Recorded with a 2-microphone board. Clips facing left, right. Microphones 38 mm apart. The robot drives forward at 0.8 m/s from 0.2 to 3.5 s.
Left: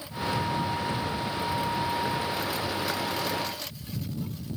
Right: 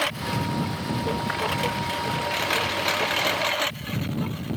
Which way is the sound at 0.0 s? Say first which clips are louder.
Right 3 dB; 90° right.